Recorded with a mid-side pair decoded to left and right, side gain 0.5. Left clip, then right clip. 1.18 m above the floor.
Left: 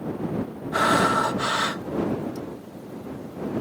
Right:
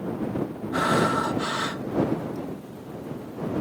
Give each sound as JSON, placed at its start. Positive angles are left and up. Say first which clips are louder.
{"t": 0.7, "sound": "breathing", "louder": "left 3 dB", "azimuth_deg": 30}